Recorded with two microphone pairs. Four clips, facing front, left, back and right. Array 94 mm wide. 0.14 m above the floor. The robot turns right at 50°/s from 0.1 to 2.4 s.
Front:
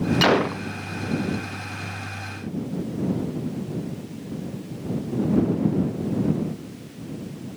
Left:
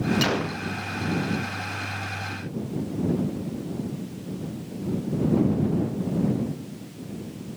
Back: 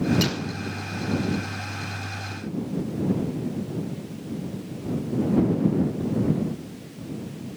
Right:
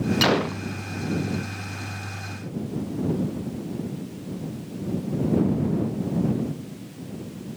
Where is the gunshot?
25° right; by 0.6 s 5° right.